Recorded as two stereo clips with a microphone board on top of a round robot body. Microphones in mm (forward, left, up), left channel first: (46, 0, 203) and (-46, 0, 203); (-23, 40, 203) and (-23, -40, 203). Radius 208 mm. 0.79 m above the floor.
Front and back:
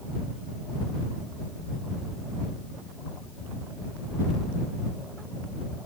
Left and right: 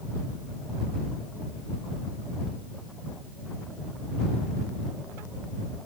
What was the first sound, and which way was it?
Only background noise.